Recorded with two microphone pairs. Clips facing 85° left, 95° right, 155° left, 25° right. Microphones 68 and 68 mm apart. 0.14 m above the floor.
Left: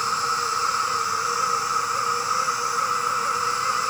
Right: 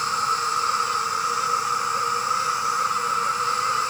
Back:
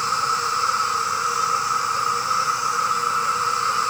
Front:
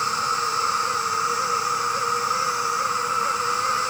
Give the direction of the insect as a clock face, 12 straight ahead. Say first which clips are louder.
Right 1 dB, back 2 dB; 7 o'clock.